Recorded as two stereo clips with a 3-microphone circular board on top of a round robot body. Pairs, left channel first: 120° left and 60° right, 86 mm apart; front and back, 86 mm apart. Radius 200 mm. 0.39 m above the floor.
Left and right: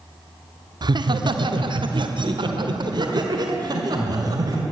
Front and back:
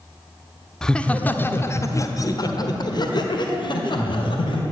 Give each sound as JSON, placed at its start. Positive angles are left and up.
{"t": 0.8, "sound": "laughter", "azimuth_deg": -85, "distance_m": 1.2}